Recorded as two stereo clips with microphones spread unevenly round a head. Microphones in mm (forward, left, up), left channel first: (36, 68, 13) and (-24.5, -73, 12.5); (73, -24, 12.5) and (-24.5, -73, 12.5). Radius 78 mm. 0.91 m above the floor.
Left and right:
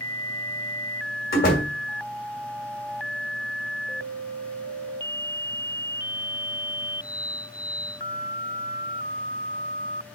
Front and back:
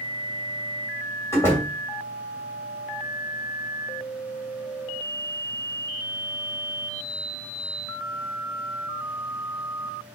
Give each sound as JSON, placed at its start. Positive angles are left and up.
{"t": 1.3, "sound": "a door slam", "azimuth_deg": 100, "distance_m": 2.5}